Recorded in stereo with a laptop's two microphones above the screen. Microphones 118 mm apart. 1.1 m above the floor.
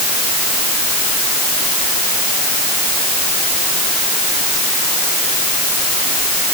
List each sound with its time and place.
Only background noise.